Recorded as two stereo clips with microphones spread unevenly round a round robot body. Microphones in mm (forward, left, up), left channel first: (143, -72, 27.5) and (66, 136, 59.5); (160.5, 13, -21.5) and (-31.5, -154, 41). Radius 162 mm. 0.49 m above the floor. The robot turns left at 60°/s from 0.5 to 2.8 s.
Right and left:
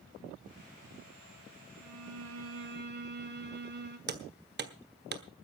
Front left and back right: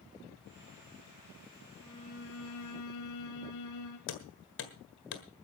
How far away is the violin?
About 2 m.